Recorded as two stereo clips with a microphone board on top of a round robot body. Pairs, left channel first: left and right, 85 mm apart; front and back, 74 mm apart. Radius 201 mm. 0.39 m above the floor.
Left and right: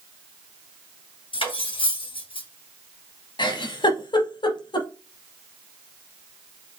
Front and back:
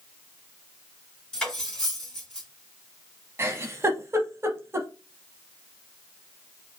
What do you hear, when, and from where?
1.3 s cutlery clinking: 80° left, 3 m
3.4 s a giggle: 120° left, 0.8 m